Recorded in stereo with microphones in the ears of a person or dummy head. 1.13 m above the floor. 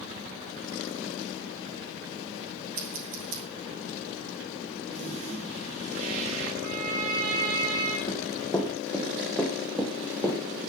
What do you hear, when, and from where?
2.8 s scissors: 45° right (ahead or behind), 5.5 m
4.9 s a toilet flushing: 40° right (ahead or behind), 7 m
6.6 s a violin: 55° right (ahead or behind), 6.5 m
8.1 s running footsteps: 10° left (ahead or behind), 3 m; by 10.4 s 15° right (ahead or behind), 2.5 m